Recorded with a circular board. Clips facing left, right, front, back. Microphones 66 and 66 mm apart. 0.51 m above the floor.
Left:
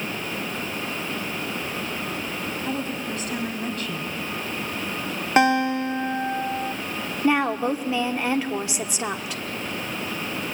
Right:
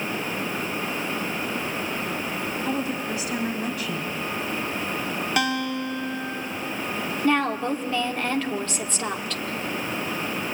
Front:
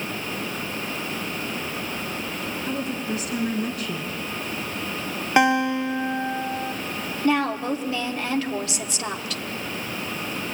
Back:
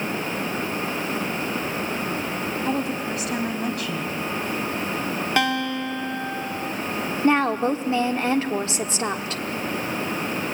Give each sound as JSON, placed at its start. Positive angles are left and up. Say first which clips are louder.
{"t": 2.6, "sound": "a woman speaking", "louder": "right 2 dB, back 2 dB", "azimuth_deg": -175, "distance_m": 3.5}
{"t": 5.4, "sound": "a guitar", "louder": "left 8 dB, front 6 dB", "azimuth_deg": 55, "distance_m": 1.0}
{"t": 7.2, "sound": "a woman speaking", "louder": "left 2 dB, back 3 dB", "azimuth_deg": 160, "distance_m": 1.4}